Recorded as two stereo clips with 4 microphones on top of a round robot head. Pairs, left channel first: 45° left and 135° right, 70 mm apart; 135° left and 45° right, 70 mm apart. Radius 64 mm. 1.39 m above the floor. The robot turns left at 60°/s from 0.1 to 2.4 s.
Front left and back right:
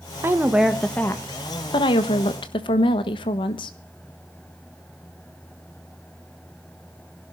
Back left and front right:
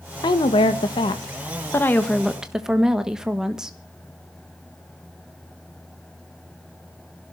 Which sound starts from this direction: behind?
A woman speaking, at 0.2 s.